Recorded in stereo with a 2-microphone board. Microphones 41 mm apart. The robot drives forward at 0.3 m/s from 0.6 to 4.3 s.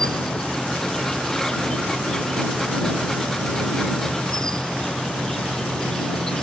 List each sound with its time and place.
0.0 s an insect: 15° left (ahead or behind)